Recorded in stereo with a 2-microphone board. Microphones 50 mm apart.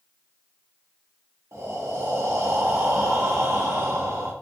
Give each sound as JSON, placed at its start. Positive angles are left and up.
{"t": 1.5, "sound": "breathing", "side_deg": -60, "distance_m": 0.7}